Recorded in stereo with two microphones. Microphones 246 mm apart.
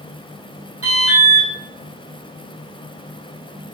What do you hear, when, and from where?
0.8 s an alarm: 70° right (ahead or behind), 4 m